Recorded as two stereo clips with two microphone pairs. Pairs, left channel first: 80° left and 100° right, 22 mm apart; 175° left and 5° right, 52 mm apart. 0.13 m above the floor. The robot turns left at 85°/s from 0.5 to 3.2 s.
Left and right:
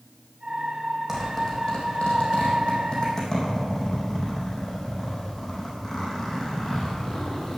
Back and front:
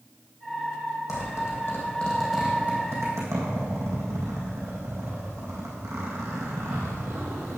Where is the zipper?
175° right, 3.5 m; by 7.6 s 10° left, 3.5 m.